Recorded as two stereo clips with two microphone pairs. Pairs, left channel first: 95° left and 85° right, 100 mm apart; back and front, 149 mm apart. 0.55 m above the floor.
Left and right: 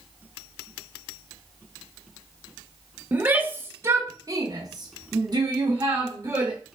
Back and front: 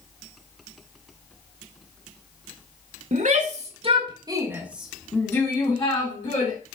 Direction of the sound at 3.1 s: 15° right.